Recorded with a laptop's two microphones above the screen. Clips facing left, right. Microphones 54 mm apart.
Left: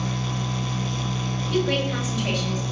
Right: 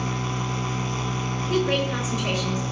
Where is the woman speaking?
25° right (ahead or behind), 3 m.